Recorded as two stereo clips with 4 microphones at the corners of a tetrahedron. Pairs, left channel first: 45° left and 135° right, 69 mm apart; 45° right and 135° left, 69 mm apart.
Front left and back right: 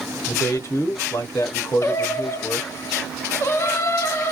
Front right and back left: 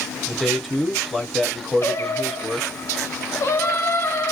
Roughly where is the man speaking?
Ahead left.